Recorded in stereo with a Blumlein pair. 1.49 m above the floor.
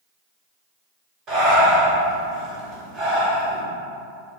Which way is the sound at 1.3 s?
30° right.